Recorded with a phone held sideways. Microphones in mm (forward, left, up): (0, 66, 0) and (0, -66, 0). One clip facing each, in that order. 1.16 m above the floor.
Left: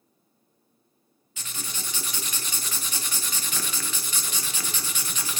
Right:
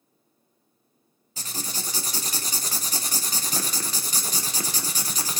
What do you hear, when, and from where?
1.4 s writing: 35° right (ahead or behind), 0.6 m